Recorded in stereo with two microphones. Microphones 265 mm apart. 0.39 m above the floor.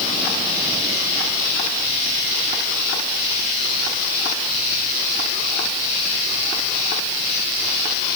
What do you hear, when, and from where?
Only background noise.